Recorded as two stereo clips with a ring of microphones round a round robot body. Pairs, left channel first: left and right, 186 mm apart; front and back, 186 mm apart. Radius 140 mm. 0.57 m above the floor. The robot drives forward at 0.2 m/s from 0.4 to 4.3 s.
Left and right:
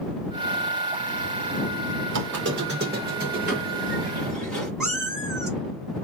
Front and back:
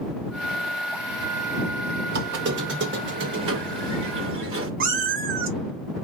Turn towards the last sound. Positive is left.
turn(degrees=-175)